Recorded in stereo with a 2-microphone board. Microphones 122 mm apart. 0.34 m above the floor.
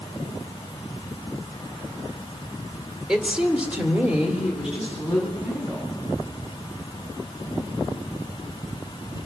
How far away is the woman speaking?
About 1.3 m.